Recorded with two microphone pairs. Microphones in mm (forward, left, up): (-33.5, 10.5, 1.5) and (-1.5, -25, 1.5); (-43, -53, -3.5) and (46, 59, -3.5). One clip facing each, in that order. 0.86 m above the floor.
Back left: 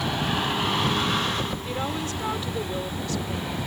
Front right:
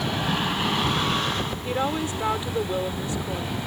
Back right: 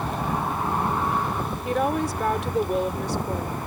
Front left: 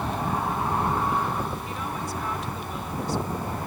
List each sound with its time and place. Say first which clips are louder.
1.6 s a woman speaking: front right 3 dB, back right 9 dB; 120° right